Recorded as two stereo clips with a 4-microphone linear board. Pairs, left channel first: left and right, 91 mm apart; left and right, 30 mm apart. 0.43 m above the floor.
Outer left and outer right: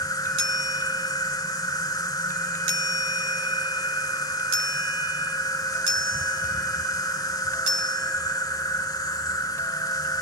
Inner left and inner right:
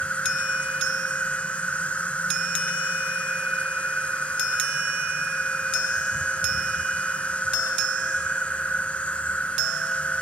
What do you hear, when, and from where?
0.0 s an insect: 45° left (ahead or behind), 1.1 m